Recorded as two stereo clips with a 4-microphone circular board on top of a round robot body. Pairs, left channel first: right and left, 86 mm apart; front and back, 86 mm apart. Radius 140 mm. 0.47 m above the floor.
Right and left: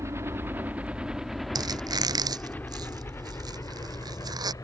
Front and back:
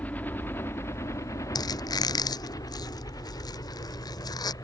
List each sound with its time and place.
0.0 s a helicopter: 60° left; by 4.6 s 45° right
1.6 s a squeak: 45° left